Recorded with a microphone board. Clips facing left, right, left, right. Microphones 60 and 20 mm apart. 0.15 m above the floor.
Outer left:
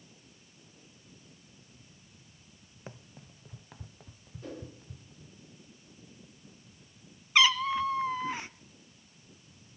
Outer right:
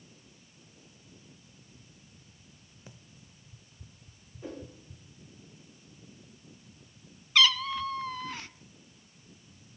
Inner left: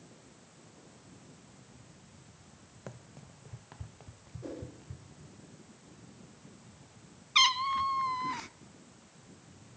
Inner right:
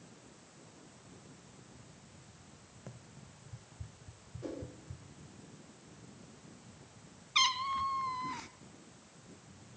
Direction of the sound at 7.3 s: 20° left (ahead or behind).